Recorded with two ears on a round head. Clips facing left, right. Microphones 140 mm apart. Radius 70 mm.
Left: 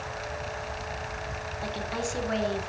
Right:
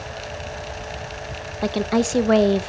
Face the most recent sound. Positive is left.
turn(degrees=-65)  # may be behind; listen again after turning